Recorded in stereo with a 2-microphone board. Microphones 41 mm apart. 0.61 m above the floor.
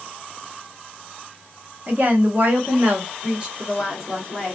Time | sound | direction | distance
1.9 | a woman speaking | 45° right (ahead or behind) | 1.1 m